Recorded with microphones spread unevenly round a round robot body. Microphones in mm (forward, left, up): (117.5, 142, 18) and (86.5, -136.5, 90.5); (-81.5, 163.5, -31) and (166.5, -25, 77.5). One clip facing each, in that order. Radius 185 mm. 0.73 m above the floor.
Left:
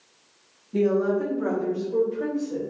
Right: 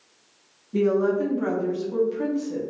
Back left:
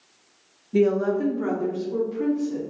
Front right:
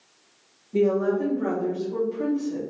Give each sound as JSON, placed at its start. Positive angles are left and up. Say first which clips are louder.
{"t": 0.7, "sound": "a woman speaking", "louder": "right 1 dB, back left 1 dB", "azimuth_deg": 170, "distance_m": 0.6}